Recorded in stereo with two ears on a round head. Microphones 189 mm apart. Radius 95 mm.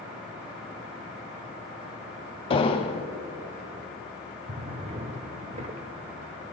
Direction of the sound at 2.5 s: 25° left (ahead or behind).